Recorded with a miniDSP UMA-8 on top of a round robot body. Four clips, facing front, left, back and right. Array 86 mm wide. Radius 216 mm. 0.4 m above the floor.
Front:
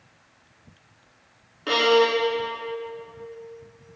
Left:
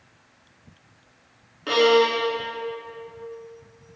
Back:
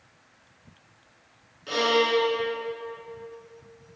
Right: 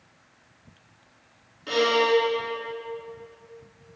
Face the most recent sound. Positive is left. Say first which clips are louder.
# left 3 dB, front 4 dB
turn(degrees=40)